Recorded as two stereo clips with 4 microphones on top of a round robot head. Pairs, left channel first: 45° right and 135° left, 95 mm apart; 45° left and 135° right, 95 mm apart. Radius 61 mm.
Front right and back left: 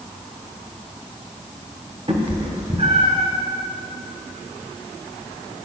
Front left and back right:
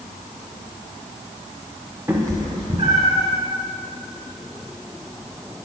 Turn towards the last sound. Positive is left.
turn(degrees=175)